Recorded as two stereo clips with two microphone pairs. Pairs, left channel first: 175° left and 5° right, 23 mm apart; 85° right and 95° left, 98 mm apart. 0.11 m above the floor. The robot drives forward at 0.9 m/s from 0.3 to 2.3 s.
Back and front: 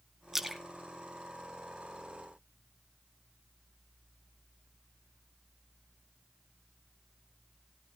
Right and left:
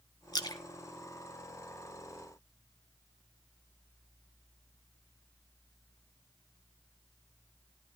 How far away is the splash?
About 1.1 m.